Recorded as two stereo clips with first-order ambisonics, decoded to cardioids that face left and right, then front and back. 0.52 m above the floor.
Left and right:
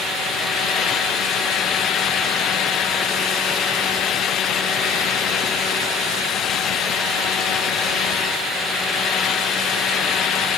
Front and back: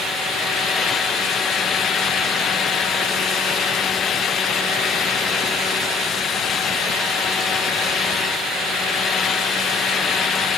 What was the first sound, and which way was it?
Only background noise.